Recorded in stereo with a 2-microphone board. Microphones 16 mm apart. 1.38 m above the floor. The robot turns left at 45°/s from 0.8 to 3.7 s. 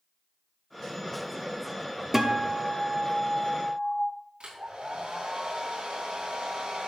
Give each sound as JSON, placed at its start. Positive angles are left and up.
{"t": 2.1, "sound": "a guitar", "azimuth_deg": -165, "distance_m": 1.0}
{"t": 4.4, "sound": "a hair dryer", "side_deg": -75, "distance_m": 4.0}